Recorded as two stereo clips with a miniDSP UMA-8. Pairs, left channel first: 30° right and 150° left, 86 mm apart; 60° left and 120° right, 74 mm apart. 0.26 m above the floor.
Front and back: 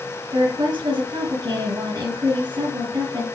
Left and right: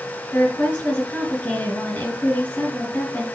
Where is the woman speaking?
130° left, 4 m.